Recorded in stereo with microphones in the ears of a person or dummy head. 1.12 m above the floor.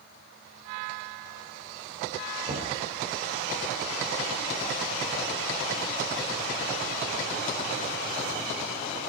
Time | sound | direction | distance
2.5 | knocking | 45° right (ahead or behind) | 3.5 m